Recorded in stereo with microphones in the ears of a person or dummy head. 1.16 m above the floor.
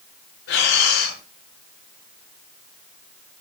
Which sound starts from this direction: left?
Breathing, at 0.5 s.